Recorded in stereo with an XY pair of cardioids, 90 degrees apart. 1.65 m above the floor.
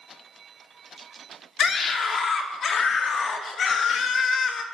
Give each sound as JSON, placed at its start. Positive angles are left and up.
{"t": 1.6, "sound": "a scream", "azimuth_deg": 60, "distance_m": 5.0}